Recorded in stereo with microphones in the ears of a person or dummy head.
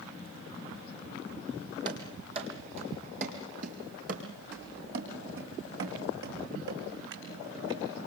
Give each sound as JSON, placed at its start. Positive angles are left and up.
{"t": 1.9, "sound": "running footsteps", "side_deg": -30, "distance_m": 3.5}